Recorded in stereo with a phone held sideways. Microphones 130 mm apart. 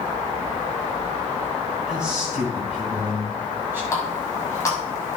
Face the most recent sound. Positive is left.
turn(degrees=20)  # may be behind; listen again after turning